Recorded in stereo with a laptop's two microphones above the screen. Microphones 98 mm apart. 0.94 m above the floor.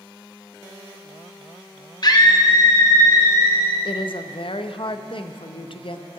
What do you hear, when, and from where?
2.0 s a scream: 45° left (ahead or behind), 1.2 m; by 3.8 s 35° left (ahead or behind), 3 m
3.9 s a woman speaking: 65° left (ahead or behind), 0.7 m